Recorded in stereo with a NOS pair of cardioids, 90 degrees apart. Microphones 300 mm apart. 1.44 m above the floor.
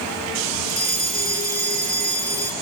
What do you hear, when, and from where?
0.7 s a fire alarm: 20° right, 8.5 m